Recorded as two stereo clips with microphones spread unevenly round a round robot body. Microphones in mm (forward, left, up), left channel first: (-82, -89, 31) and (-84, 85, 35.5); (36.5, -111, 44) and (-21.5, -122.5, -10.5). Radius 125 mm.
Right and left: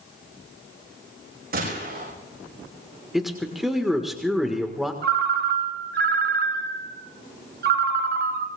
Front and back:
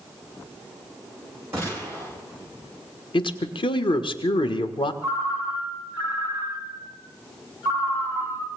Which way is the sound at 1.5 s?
120° left.